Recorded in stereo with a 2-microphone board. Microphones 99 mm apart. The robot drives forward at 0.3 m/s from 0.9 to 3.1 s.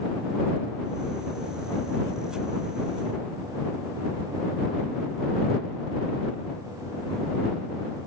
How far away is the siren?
No siren in this recording.